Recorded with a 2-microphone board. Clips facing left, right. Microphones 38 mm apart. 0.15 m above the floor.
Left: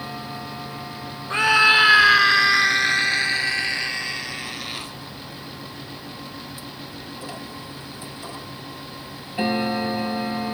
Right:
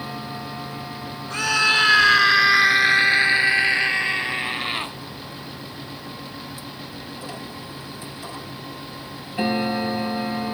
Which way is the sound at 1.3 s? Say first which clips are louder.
Left 4 dB; 25° left (ahead or behind).